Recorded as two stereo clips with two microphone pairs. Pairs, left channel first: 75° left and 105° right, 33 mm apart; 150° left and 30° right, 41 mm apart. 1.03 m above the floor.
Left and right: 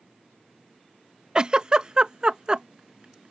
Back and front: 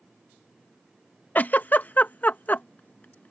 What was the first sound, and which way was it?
A giggle, 165° right.